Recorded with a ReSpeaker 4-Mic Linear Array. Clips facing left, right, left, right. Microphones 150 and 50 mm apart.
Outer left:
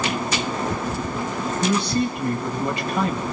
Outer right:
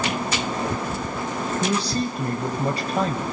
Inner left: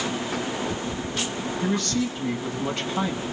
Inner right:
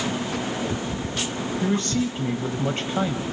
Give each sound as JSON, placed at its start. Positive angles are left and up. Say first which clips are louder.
{"t": 1.6, "sound": "a man speaking", "louder": "outer left 4 dB, inner right 1 dB", "side_deg": -35, "distance_m": 3.0}